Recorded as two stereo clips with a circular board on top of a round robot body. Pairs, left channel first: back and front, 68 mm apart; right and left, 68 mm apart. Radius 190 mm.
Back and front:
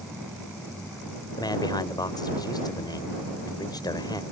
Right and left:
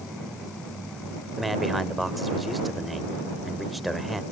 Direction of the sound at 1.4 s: Straight behind.